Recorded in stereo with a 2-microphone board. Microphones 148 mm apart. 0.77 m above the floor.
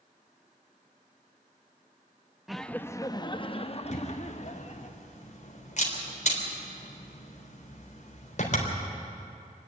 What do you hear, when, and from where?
2.5 s laughter: centre (ahead or behind), 0.6 m; by 4.9 s 55° left (ahead or behind), 1.6 m
3.9 s a camera shutter: 55° left (ahead or behind), 3.5 m